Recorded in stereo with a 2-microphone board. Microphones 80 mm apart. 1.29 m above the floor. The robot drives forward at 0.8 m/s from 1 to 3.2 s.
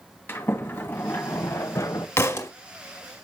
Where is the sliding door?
25° left (ahead or behind), 1.8 m; by 2.1 s 45° left (ahead or behind), 1.2 m.